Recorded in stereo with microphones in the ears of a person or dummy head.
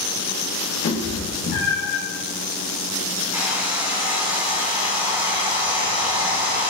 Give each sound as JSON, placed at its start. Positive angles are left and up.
{"t": 0.8, "sound": "a cat meowing", "side_deg": 75, "distance_m": 2.0}
{"t": 3.3, "sound": "a hair dryer", "side_deg": -15, "distance_m": 1.5}